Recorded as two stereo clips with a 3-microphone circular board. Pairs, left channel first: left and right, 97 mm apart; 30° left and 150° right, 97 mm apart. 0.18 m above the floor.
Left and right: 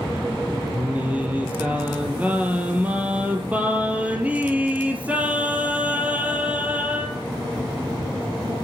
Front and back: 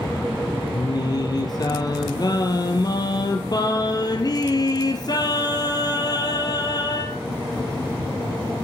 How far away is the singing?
About 1.4 m.